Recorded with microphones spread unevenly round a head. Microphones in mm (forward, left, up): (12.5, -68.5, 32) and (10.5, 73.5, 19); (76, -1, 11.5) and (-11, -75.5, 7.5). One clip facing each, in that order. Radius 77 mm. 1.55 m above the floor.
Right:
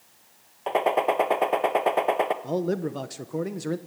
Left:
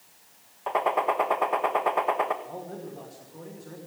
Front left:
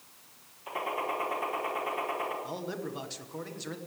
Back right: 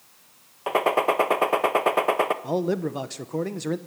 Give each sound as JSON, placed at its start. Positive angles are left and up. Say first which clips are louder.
{"t": 0.7, "sound": "a gunshot", "louder": "right 3 dB, back right 12 dB", "azimuth_deg": -150, "distance_m": 1.3}
{"t": 2.4, "sound": "a man speaking", "louder": "right 11 dB, back right 12 dB", "azimuth_deg": -105, "distance_m": 1.1}